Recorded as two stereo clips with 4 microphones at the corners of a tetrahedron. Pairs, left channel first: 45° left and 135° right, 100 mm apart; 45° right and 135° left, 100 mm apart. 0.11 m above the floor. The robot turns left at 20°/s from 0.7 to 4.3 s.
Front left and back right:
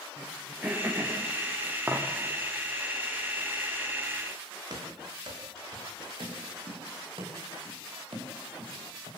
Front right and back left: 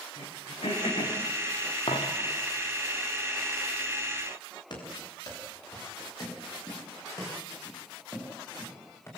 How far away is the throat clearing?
About 6.5 m.